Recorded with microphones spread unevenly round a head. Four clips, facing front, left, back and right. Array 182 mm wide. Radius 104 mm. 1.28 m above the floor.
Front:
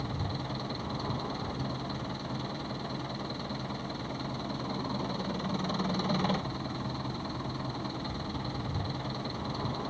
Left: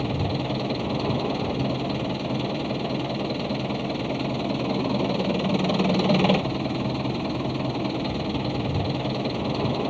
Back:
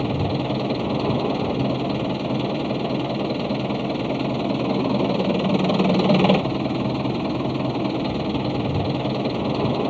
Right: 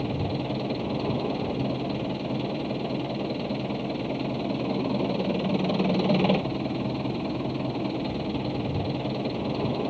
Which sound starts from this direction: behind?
An engine running, at 0.0 s.